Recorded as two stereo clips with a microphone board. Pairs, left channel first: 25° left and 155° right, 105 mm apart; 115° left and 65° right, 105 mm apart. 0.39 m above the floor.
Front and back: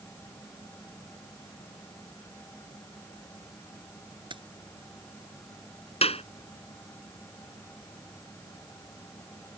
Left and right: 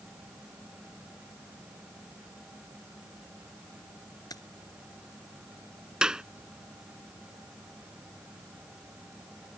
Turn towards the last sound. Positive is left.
turn(degrees=15)